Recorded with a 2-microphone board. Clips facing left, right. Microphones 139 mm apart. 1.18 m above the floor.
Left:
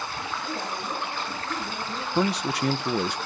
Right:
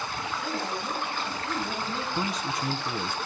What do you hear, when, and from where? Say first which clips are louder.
0.4 s a woman speaking: right 2 dB; 80° right, 9 m
2.1 s a man speaking: left 9 dB; 75° left (ahead or behind), 0.5 m